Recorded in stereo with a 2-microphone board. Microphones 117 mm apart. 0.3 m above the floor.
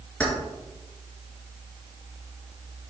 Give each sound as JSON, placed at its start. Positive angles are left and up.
{"t": 0.2, "sound": "keys jangling", "side_deg": 10, "distance_m": 3.5}